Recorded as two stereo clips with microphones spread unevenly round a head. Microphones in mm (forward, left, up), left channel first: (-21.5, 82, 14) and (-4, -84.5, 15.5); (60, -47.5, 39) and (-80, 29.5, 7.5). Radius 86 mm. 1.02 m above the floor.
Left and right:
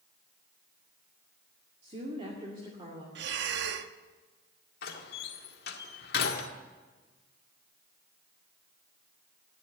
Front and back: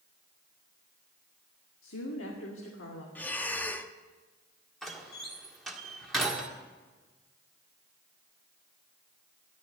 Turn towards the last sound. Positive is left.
turn(degrees=60)